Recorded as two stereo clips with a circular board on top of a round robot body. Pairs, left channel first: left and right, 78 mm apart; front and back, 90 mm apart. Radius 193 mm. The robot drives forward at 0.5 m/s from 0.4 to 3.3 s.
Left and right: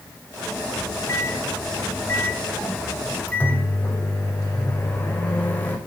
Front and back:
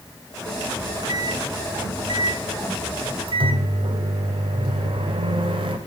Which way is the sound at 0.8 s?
130° left.